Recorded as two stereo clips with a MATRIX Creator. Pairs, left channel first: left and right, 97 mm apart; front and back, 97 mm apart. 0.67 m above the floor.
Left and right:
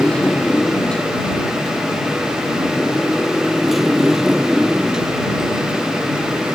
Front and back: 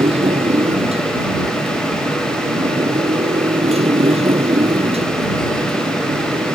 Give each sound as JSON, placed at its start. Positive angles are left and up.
{"t": 0.0, "sound": "a motorcycle", "azimuth_deg": 170}